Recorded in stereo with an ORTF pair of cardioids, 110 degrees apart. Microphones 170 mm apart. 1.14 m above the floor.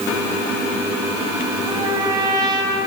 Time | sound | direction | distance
1.7 | a trumpet | 20° right | 5 m